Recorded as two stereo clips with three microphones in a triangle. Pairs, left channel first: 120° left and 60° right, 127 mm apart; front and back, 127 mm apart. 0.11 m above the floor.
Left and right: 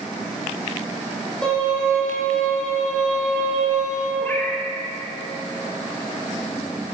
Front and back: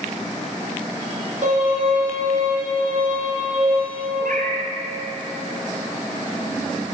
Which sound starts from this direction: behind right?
A violin, at 1.4 s.